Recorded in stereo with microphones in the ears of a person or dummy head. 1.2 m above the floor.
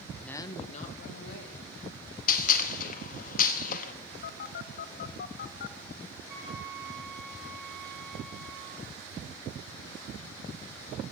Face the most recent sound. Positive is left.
turn(degrees=-55)  # may be behind; listen again after turning